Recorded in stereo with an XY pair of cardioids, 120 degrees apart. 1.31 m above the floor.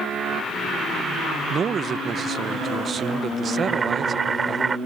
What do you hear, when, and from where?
1.5 s a man speaking: 35° right
3.6 s boiling: 30° right